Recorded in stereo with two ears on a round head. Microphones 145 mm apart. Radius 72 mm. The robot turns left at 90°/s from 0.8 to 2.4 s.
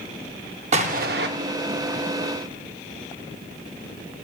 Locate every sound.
0.7 s an explosion: 45° right, 0.6 m; by 1.3 s 90° right, 0.6 m